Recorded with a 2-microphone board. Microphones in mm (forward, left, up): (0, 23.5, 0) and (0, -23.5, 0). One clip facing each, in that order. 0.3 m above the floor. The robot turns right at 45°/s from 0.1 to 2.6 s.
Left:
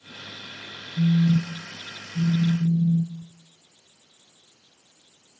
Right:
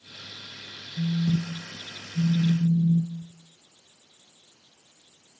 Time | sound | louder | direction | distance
1.0 | a phone buzzing | left 5 dB | 85° left | 3 m